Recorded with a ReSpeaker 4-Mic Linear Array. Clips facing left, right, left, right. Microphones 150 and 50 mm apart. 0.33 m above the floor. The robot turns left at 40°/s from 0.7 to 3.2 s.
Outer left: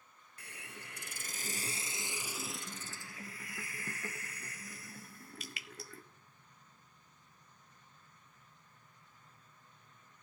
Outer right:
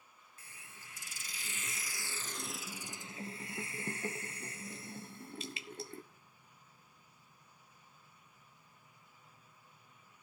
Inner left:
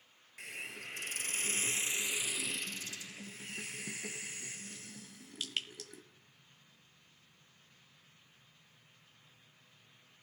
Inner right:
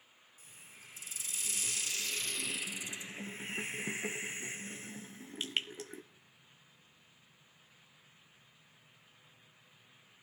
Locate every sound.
0.4 s a hiss: 70° left, 1.0 m; by 6.0 s 30° right, 1.0 m